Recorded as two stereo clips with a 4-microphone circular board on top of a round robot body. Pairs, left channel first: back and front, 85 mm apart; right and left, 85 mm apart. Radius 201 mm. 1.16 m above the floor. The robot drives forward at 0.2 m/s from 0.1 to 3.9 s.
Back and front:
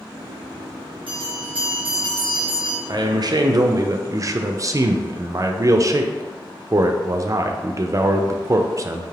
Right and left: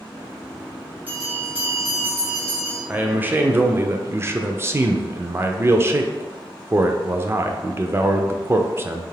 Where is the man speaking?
20° left, 0.6 m; by 9.0 s 35° left, 0.5 m.